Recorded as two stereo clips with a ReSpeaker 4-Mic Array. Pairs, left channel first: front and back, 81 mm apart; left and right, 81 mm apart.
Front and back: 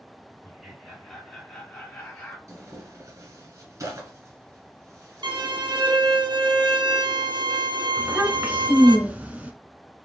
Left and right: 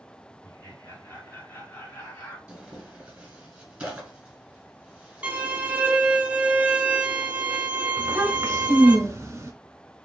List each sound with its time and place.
0.4 s laughter: 95° left, 2.0 m; by 2.4 s 45° left, 2 m
2.5 s tearing paper: 160° right, 1.2 m
5.2 s a violin: 160° right, 0.6 m
8.0 s a child speaking: 115° right, 0.9 m